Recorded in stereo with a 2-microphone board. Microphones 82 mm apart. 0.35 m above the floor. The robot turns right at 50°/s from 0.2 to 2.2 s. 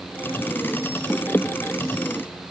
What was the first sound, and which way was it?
Only background noise.